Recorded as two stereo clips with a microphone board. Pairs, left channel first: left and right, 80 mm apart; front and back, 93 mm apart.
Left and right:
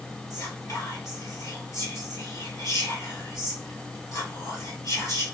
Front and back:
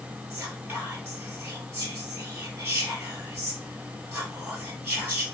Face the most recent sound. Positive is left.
turn(degrees=120)